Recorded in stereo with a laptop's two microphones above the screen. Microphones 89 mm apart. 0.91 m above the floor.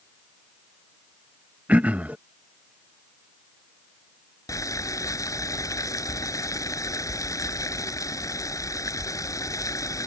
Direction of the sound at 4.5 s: 40° left (ahead or behind).